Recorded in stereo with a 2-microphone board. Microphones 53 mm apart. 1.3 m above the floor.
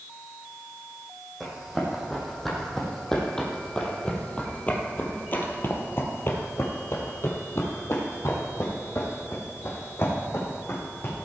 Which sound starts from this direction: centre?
Running footsteps, at 1.4 s.